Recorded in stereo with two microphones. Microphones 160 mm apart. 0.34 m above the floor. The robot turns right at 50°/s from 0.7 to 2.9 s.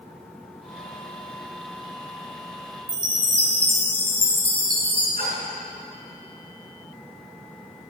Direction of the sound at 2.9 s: 35° left (ahead or behind).